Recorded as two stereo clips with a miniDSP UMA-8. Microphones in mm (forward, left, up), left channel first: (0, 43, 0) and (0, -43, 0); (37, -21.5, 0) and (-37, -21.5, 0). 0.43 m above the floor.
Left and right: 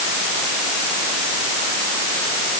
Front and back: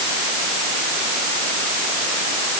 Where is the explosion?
No explosion in this recording.